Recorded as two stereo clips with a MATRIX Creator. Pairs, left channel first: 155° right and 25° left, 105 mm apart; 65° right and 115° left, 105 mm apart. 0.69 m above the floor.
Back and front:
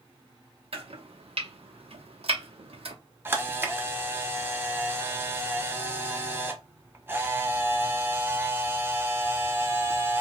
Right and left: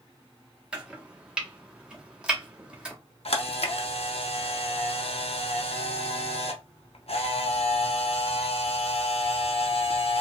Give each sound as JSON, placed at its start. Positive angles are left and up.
{"t": 0.7, "sound": "chopping", "azimuth_deg": 30, "distance_m": 0.7}
{"t": 3.2, "sound": "a camera shutter", "azimuth_deg": -45, "distance_m": 0.5}